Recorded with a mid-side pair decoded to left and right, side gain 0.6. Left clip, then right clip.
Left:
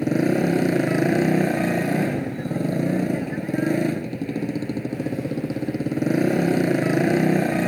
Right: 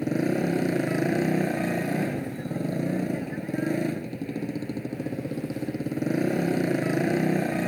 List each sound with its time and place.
0.0 s a motorcycle: 25° left